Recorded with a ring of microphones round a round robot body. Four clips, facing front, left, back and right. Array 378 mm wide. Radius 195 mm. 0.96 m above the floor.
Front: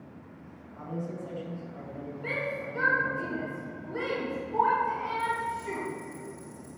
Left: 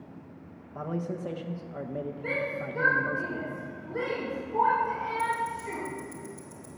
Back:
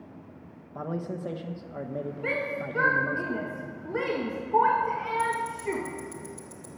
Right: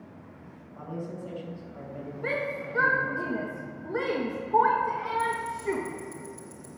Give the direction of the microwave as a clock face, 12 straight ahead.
No microwave in this recording.